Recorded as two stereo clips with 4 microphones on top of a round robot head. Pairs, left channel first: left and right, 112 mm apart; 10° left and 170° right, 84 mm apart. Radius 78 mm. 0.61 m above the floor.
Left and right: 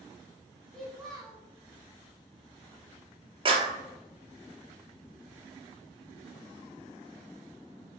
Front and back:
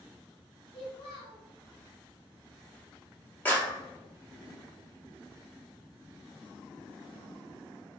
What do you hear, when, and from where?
0.7 s a child speaking: 5° left, 1.6 m
3.5 s a clap: 60° right, 0.9 m